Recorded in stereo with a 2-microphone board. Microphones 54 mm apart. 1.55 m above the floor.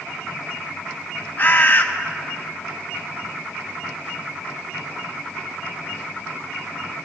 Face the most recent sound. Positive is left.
turn(degrees=35)  # may be behind; listen again after turning